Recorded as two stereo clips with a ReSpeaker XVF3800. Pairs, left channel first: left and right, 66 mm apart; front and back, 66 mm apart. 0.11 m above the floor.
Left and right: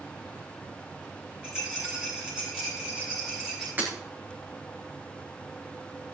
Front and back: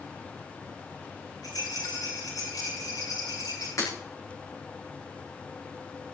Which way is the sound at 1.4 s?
10° right.